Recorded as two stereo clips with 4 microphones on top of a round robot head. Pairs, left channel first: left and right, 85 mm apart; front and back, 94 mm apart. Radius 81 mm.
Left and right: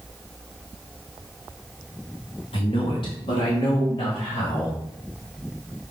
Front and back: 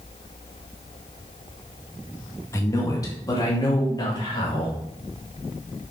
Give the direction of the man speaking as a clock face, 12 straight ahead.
10 o'clock.